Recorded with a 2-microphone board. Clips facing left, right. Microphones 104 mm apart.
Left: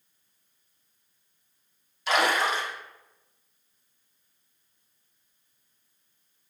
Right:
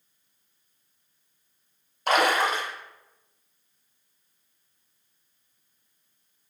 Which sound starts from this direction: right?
A splash, at 2.1 s.